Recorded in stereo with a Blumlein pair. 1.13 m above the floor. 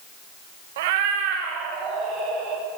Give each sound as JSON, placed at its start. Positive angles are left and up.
{"t": 0.8, "sound": "a cat meowing", "azimuth_deg": -55, "distance_m": 0.8}